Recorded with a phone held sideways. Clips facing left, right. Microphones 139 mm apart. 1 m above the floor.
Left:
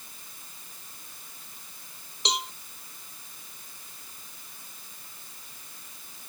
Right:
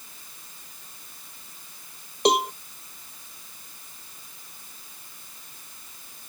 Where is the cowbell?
55° right (ahead or behind).